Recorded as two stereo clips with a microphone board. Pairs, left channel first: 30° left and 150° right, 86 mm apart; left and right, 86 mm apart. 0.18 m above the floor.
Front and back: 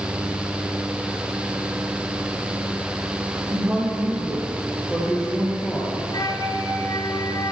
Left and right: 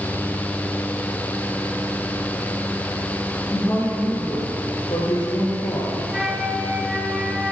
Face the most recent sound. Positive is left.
turn(degrees=-5)